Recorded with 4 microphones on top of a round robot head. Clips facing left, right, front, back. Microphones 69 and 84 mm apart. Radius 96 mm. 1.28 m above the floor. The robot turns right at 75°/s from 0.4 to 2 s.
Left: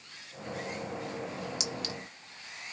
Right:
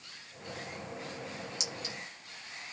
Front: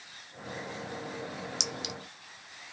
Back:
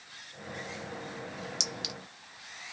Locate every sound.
1.6 s a clink: 40° left, 1.1 m; by 1.9 s 65° left, 1.1 m